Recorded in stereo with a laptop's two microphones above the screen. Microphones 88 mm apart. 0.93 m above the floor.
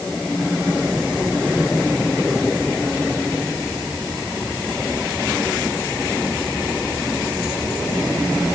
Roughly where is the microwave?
I don't hear a microwave.